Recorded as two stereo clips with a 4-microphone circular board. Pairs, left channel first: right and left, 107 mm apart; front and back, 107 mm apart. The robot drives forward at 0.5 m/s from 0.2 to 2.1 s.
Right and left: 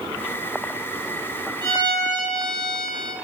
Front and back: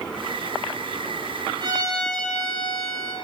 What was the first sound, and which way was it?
A violin, 135° left.